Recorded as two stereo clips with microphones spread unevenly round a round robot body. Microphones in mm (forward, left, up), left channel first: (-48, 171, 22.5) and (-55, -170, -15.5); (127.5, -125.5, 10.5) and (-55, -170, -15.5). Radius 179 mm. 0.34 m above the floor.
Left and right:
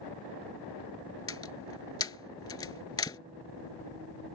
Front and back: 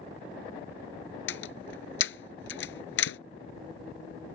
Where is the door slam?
10° left.